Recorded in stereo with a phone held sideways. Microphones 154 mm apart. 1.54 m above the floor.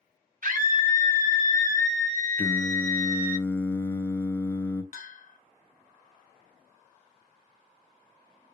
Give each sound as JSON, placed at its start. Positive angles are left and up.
{"t": 0.4, "sound": "a scream", "side_deg": -60, "distance_m": 0.7}
{"t": 2.4, "sound": "singing", "side_deg": 10, "distance_m": 0.5}
{"t": 4.9, "sound": "a bell", "side_deg": 65, "distance_m": 0.6}